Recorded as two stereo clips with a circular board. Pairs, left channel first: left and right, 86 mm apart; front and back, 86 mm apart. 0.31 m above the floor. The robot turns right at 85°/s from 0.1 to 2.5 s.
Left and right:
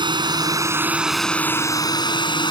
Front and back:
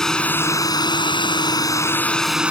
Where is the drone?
85° right; by 2.5 s 105° left.